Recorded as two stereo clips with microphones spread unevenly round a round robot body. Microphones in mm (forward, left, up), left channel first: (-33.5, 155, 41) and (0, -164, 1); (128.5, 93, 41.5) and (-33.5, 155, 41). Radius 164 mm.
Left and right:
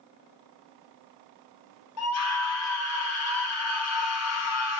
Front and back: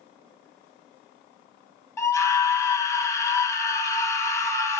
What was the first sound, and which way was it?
A scream, 50° left.